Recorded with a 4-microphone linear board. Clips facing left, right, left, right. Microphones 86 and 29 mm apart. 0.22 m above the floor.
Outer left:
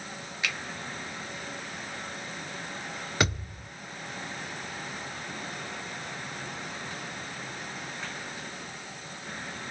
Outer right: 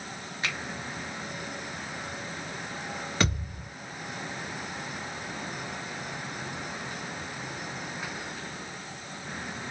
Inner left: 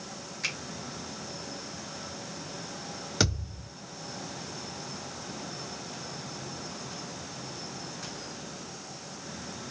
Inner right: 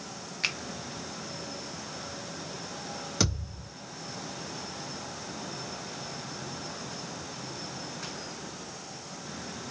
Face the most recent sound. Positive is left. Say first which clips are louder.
# outer left 1 dB, inner left 2 dB
turn(degrees=10)  # may be behind; listen again after turning